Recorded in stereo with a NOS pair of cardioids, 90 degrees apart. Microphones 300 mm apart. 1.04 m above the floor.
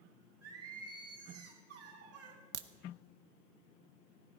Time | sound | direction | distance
0.4 | singing | 55° right | 2.5 m
2.5 | a crack | 60° right | 0.8 m